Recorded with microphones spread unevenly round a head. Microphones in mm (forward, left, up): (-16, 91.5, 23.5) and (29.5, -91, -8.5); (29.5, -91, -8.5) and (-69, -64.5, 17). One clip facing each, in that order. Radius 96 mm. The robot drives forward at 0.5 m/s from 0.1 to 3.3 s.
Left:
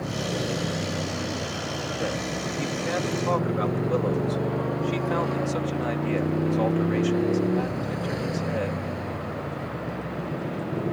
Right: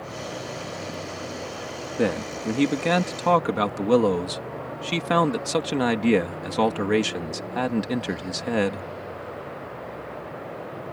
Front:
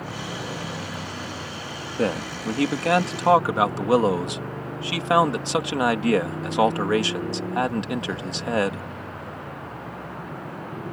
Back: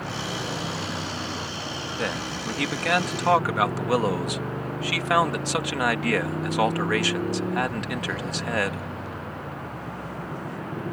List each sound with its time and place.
0.0 s a motorcycle: 75° left; by 10.9 s 85° left
2.0 s a man speaking: 65° right; by 8.9 s 80° right